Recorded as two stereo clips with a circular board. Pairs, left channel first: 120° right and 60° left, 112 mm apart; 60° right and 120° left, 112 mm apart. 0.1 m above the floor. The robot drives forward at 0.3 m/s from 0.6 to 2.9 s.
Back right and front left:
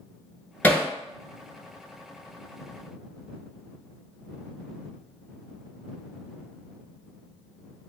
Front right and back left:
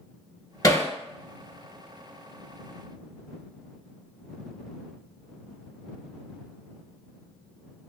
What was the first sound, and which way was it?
Hammering, 60° right.